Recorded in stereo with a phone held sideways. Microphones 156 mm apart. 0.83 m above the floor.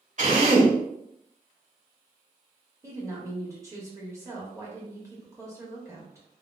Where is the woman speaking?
20° right (ahead or behind), 1.2 m.